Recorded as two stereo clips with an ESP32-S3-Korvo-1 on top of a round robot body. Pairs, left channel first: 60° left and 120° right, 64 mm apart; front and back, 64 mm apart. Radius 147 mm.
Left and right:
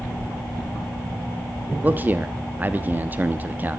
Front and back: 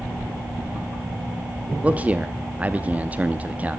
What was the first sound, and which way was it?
A man speaking, 140° right.